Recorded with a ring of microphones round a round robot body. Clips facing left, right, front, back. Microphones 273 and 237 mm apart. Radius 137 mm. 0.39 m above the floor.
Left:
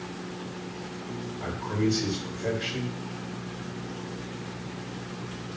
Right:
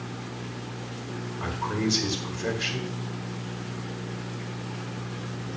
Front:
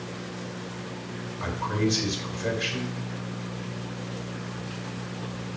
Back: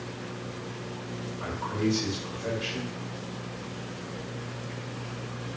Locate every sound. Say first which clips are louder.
1.4 s a man speaking: left 1 dB, front 2 dB; 35° right, 1.7 m